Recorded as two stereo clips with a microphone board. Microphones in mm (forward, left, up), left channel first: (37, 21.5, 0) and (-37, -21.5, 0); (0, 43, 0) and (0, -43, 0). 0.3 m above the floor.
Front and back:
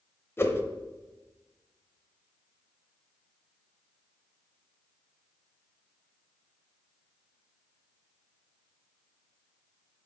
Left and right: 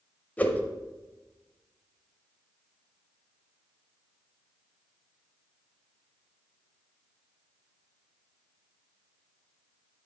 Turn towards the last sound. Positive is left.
turn(degrees=40)